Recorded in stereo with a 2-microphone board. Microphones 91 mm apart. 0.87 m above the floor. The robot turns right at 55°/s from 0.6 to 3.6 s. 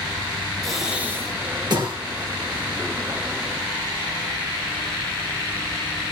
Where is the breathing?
5° left (ahead or behind), 3.5 m; by 2.0 s 70° right (ahead or behind), 3.5 m.